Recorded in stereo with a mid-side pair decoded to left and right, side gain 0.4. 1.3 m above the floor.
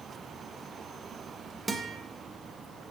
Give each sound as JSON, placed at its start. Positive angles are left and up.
{"t": 1.7, "sound": "a guitar", "azimuth_deg": -30, "distance_m": 1.0}